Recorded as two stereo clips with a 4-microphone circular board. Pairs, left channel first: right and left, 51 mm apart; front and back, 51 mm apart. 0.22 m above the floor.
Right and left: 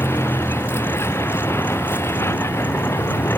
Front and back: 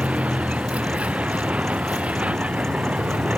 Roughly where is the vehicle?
Behind right.